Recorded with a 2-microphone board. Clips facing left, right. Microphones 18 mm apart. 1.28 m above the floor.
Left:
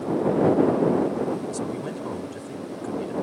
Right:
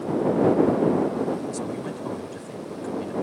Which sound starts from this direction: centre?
A man speaking, at 1.5 s.